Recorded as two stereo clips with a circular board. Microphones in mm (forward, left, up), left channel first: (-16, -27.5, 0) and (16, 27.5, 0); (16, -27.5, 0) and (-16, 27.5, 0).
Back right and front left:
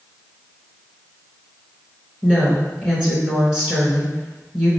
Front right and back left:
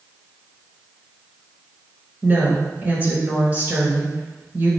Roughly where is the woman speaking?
Behind left.